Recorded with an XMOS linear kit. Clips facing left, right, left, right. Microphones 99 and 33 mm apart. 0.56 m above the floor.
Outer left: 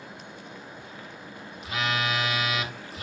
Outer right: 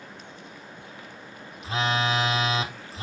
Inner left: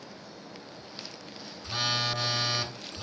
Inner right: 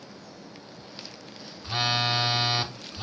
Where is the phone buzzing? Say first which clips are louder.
Outer right 3 dB, inner right 4 dB; 30° right (ahead or behind), 0.8 m.